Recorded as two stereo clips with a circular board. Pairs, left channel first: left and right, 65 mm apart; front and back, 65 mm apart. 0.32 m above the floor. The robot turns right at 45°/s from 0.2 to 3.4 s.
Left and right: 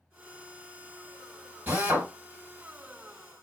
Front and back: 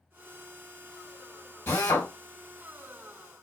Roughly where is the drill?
Ahead right.